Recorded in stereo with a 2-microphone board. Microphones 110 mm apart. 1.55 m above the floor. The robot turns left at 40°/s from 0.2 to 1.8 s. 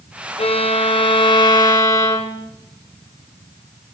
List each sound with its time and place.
0.4 s a violin: 90° left, 0.7 m; by 2.5 s 35° left, 0.7 m